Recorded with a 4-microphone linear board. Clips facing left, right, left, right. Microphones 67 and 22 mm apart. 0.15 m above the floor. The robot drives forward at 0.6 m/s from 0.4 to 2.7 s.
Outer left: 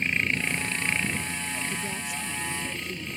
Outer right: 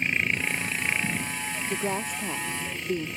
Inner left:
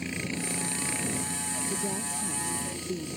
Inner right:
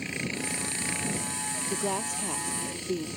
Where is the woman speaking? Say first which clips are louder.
Outer right 4 dB, inner right 2 dB; 45° right (ahead or behind); by 3.1 s 55° right (ahead or behind).